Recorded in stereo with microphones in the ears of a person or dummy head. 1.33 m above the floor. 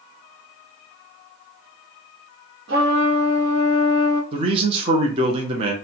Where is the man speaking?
35° right (ahead or behind), 0.6 m.